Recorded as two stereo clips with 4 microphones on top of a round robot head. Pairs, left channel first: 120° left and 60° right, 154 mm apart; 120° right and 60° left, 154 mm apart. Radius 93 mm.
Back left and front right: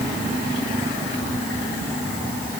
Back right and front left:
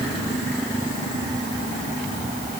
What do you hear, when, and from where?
Only background noise.